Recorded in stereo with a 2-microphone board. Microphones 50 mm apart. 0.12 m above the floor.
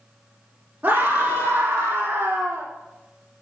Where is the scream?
35° right (ahead or behind), 4 m; by 2.7 s 45° right (ahead or behind), 4.5 m.